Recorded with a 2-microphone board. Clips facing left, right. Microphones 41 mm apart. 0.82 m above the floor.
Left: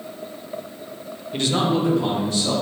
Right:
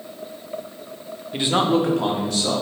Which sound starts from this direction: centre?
A man speaking, at 1.3 s.